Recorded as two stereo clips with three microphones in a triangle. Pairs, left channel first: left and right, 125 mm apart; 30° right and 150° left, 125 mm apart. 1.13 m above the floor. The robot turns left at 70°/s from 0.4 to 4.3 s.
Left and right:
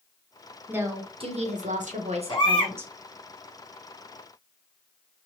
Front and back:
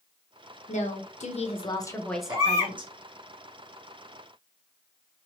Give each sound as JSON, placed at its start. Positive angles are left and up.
{"t": 0.7, "sound": "a woman speaking", "azimuth_deg": -10, "distance_m": 0.7}
{"t": 2.3, "sound": "a baby crying", "azimuth_deg": 115, "distance_m": 0.6}